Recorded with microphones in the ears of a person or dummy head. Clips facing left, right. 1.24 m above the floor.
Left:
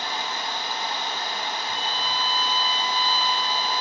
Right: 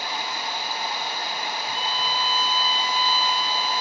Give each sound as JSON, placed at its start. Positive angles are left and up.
{"t": 0.0, "sound": "running water", "side_deg": -10, "distance_m": 1.1}
{"t": 1.7, "sound": "a violin", "side_deg": -75, "distance_m": 1.3}